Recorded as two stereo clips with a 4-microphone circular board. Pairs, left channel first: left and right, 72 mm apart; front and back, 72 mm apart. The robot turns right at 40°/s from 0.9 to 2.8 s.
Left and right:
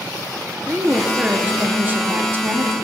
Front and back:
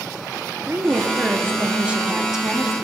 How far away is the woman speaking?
About 1.2 m.